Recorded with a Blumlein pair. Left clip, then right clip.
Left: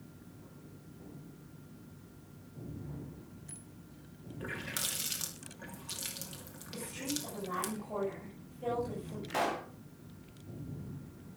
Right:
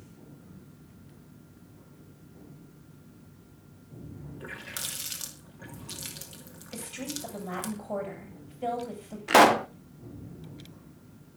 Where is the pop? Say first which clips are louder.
Right 16 dB; 50° right, 0.6 m.